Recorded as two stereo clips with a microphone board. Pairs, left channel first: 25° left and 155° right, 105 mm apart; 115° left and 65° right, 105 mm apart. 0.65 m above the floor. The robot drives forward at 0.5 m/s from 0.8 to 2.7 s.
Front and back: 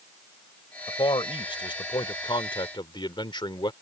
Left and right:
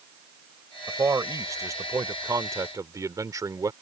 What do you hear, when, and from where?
0.9 s a man speaking: 10° right; by 3.7 s 15° right